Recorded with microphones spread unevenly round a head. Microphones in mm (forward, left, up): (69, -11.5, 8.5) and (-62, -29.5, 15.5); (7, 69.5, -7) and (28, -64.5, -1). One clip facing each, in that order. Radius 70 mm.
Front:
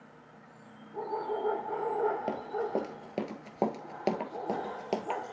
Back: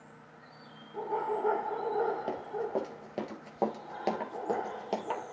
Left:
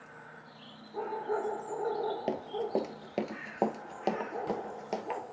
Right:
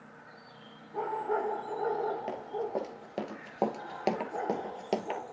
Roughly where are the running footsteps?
Left.